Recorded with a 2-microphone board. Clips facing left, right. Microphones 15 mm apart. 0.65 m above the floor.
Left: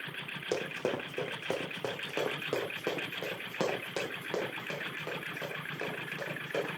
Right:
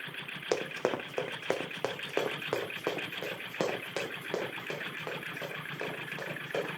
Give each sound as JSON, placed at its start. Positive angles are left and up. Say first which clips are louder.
{"t": 0.5, "sound": "running footsteps", "louder": "right 2 dB", "side_deg": -70, "distance_m": 1.9}